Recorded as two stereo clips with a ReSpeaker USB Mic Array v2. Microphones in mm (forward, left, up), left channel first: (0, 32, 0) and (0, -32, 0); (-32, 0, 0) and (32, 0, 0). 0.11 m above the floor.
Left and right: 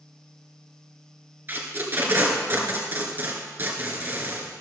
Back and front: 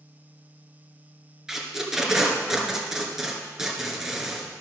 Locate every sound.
1.5 s tape being pulled: 75° right, 1.9 m